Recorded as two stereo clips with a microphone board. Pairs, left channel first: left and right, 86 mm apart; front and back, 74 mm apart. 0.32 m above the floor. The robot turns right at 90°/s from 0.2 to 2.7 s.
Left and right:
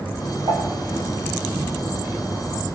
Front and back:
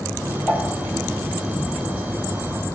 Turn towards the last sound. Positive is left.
turn(degrees=110)